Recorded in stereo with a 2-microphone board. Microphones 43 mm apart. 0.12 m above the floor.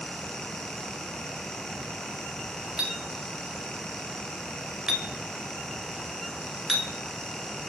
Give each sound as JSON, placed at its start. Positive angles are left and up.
{"t": 2.8, "sound": "a clink", "side_deg": -20, "distance_m": 0.7}